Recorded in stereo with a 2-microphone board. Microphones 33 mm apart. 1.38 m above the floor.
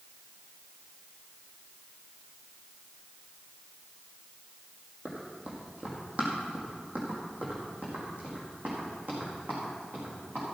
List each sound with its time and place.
5.0 s running footsteps: 45° right (ahead or behind), 3 m; by 10.4 s 50° right (ahead or behind), 6.5 m